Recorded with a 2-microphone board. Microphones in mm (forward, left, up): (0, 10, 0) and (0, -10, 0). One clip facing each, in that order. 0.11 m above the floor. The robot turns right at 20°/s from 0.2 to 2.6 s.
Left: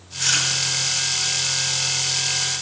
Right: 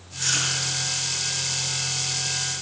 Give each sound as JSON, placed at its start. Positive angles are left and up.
{"t": 0.2, "sound": "chewing", "side_deg": 25, "distance_m": 2.5}